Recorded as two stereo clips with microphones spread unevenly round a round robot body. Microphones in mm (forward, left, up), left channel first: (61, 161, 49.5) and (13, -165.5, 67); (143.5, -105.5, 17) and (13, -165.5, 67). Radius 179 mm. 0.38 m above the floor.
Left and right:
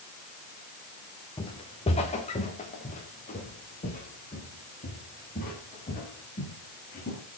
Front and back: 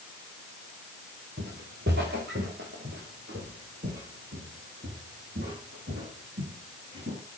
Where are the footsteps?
160° left, 2.5 m; by 7.2 s 150° left, 11 m.